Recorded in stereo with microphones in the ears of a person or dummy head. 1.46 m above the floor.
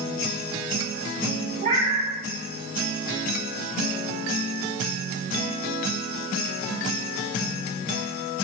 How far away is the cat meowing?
About 2.5 m.